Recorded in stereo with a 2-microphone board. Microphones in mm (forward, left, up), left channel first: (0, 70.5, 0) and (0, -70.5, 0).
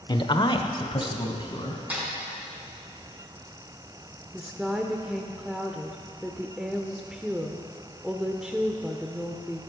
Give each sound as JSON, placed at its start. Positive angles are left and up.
{"t": 0.1, "sound": "a man speaking", "side_deg": 30, "distance_m": 0.9}
{"t": 1.9, "sound": "a snare drum", "side_deg": -10, "distance_m": 4.5}
{"t": 4.3, "sound": "a woman speaking", "side_deg": -5, "distance_m": 0.9}